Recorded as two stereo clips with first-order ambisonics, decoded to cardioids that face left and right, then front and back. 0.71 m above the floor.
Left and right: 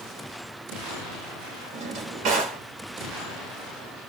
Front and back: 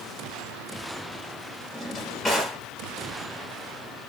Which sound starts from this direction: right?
A drawer, at 1.7 s.